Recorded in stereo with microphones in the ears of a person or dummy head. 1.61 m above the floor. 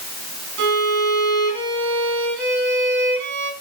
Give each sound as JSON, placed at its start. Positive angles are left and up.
{"t": 0.6, "sound": "a violin", "side_deg": -60, "distance_m": 5.0}